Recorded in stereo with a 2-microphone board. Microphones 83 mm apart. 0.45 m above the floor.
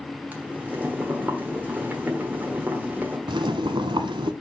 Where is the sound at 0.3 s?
20° right (ahead or behind), 1.3 m.